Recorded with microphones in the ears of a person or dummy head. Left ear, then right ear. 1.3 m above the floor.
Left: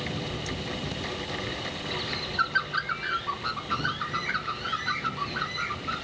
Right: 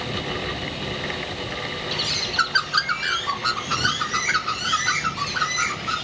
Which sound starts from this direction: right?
A bird, at 1.9 s.